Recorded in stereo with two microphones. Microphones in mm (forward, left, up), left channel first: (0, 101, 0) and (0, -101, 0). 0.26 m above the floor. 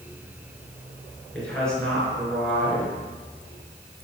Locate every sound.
1.3 s a woman speaking: 5° left (ahead or behind), 3 m